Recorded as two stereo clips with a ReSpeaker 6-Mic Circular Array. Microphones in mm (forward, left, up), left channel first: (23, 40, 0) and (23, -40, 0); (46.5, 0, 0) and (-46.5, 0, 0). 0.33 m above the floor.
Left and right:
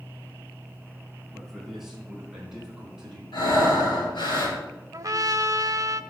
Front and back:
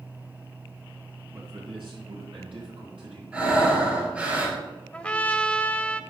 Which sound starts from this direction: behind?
A man speaking, at 1.3 s.